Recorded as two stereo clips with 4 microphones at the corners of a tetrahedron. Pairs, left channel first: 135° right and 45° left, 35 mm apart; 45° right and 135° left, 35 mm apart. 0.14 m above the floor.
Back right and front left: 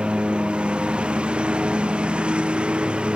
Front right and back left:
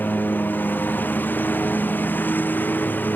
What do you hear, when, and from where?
0.0 s a lawn mower: 20° right